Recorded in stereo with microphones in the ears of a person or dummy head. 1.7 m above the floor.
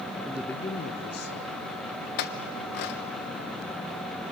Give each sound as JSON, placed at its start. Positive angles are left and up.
{"t": 0.2, "sound": "a man speaking", "side_deg": -20, "distance_m": 0.6}
{"t": 2.2, "sound": "a clink", "side_deg": 60, "distance_m": 1.1}